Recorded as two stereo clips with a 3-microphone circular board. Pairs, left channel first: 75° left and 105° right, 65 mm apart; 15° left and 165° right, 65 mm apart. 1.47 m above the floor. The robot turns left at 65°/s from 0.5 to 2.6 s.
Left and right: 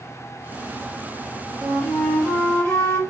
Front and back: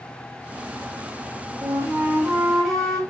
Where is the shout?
I don't hear a shout.